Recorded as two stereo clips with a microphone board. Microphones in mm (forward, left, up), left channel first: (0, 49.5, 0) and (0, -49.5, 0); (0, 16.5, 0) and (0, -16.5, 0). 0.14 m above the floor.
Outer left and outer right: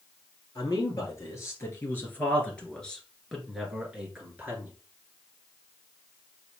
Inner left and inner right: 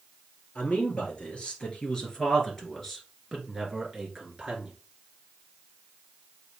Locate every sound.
0.6 s a man speaking: 40° left (ahead or behind), 2.5 m; by 4.7 s 20° right (ahead or behind), 2.0 m